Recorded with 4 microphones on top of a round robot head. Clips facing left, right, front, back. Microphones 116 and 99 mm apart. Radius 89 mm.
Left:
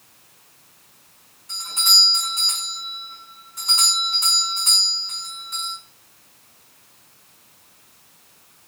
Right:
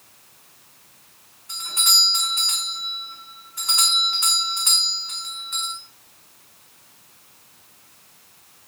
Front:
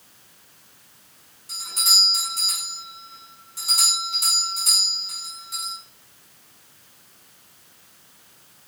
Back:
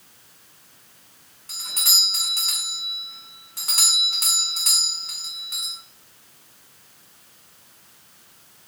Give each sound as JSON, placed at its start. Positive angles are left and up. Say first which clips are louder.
{"t": 1.5, "sound": "a doorbell", "louder": "even, front 4 dB", "azimuth_deg": 160, "distance_m": 5.5}